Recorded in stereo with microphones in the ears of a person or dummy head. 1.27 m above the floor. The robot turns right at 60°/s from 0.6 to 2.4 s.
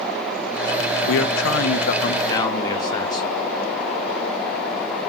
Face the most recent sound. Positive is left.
turn(degrees=155)